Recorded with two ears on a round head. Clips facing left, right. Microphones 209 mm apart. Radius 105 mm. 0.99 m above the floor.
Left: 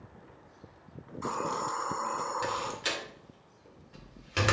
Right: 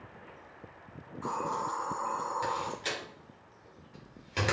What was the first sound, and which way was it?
A hiss, 40° left (ahead or behind).